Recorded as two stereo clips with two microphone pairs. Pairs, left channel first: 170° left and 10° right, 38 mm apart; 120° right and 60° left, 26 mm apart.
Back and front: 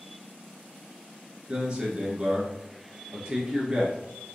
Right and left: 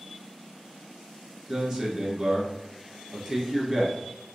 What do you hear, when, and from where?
1.5 s a man speaking: 10° left, 1.3 m